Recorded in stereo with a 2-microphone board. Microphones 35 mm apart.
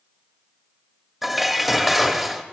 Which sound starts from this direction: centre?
Dishes clattering, at 1.2 s.